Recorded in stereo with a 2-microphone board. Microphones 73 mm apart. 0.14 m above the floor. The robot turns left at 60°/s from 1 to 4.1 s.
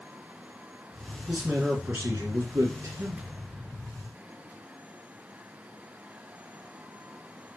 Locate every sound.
1.3 s a man speaking: straight ahead, 2.5 m; by 3.2 s 120° right, 2.5 m